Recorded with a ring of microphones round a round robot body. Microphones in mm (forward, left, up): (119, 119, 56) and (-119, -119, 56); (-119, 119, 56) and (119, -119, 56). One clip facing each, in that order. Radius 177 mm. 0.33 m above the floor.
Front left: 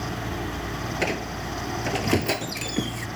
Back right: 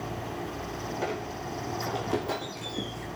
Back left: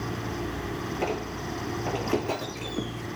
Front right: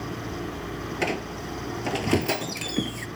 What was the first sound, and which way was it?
A squeak, 5° left.